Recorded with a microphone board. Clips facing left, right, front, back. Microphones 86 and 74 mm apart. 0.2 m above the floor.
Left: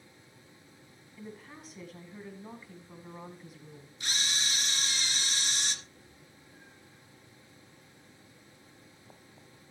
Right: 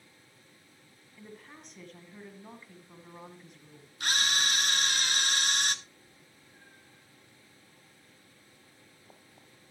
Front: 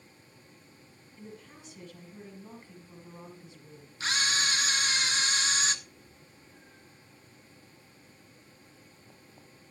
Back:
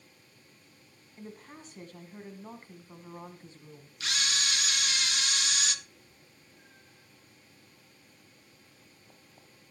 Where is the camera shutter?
55° right, 0.6 m.